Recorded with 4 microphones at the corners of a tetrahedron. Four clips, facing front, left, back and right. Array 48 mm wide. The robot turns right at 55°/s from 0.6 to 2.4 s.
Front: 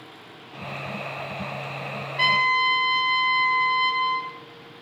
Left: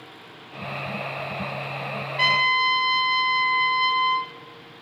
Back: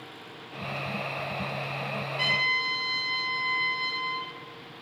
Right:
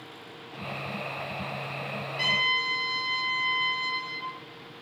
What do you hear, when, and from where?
2.2 s a trumpet: 45° left, 0.8 m; by 4.3 s 60° left, 0.8 m